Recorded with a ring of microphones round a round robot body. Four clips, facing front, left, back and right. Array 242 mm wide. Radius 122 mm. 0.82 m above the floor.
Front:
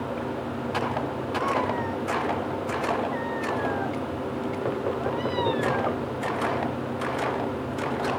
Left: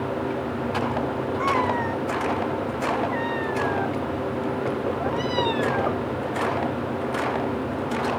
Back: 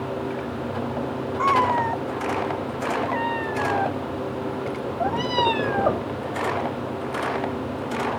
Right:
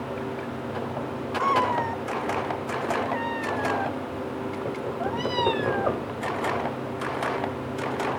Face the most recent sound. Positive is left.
turn(degrees=180)